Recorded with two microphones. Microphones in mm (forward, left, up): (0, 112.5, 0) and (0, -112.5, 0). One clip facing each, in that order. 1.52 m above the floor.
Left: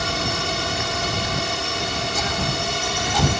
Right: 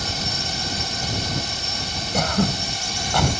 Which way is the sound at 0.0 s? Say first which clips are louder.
Left 5 dB; 70° left (ahead or behind).